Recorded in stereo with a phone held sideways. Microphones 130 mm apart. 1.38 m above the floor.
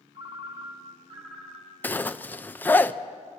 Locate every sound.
0.1 s a ringtone: 50° right (ahead or behind), 2 m
1.8 s a zipper: 15° left (ahead or behind), 0.5 m